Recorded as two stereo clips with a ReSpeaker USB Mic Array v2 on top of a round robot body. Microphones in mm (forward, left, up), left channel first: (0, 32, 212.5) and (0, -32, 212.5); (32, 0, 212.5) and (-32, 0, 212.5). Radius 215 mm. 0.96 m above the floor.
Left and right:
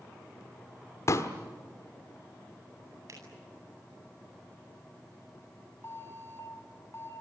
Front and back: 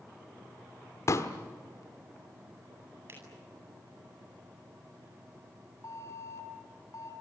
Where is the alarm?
35° left, 6.5 m.